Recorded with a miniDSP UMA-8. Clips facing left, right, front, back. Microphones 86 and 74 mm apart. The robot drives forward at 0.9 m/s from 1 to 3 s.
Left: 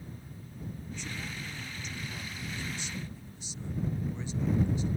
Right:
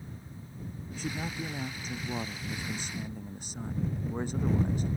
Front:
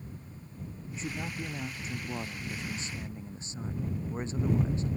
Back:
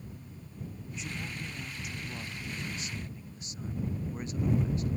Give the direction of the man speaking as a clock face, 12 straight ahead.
2 o'clock.